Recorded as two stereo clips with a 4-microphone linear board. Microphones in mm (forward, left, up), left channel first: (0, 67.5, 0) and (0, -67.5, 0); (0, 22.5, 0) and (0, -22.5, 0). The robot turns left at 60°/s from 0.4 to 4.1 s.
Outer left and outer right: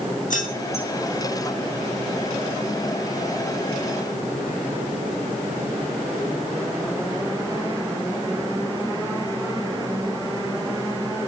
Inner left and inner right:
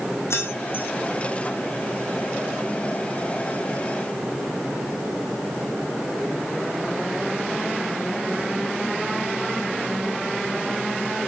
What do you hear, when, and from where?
0.3 s keys jangling: 70° left (ahead or behind), 6.5 m; by 0.9 s 40° left (ahead or behind), 6.5 m